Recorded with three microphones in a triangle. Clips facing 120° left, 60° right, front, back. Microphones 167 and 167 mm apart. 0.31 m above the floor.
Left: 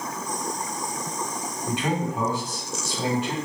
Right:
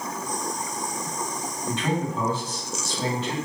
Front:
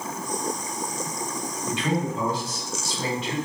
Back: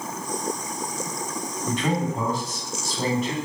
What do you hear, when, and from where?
1.7 s a man speaking: 170° right, 1.8 m